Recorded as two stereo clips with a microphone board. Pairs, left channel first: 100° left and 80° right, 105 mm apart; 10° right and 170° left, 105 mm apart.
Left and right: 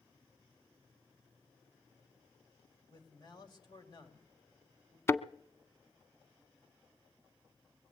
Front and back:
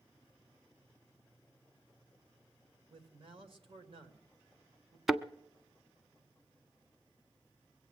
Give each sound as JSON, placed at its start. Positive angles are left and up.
{"t": 2.9, "sound": "a man speaking", "azimuth_deg": 140, "distance_m": 2.5}
{"t": 5.1, "sound": "a thud", "azimuth_deg": 80, "distance_m": 0.5}